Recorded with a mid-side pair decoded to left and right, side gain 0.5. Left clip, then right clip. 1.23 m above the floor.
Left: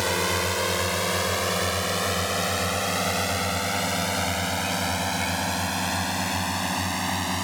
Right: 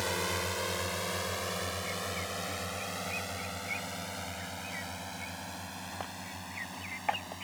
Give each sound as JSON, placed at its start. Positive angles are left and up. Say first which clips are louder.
{"t": 0.0, "sound": "a drone", "louder": "left 8 dB", "azimuth_deg": 45}